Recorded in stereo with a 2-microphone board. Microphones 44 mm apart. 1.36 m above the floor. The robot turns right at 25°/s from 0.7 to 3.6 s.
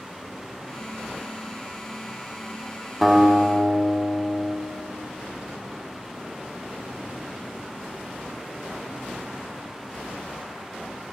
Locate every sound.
3.0 s a guitar: 10° right (ahead or behind), 1.4 m; by 4.6 s 5° left (ahead or behind), 1.4 m